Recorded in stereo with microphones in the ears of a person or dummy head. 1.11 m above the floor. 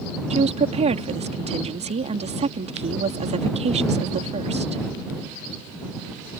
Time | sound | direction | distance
0.3 | a woman speaking | 35° right (ahead or behind) | ?